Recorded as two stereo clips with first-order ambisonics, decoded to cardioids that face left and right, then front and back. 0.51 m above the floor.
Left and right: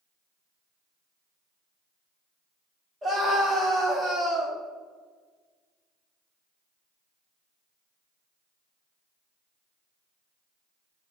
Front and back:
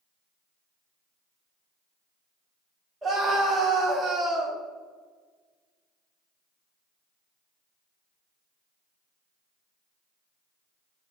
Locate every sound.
3.0 s a scream: 125° right, 0.7 m